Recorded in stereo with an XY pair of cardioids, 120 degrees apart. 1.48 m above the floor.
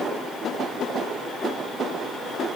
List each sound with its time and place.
Only background noise.